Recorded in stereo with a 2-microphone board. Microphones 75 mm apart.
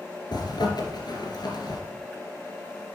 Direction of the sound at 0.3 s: 65° left (ahead or behind).